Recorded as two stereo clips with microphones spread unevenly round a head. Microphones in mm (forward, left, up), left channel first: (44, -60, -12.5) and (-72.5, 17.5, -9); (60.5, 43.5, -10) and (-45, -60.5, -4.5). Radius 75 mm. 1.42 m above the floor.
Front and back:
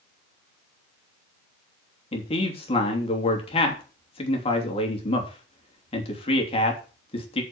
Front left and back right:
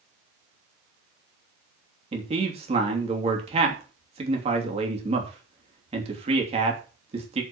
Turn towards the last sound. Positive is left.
turn(degrees=-85)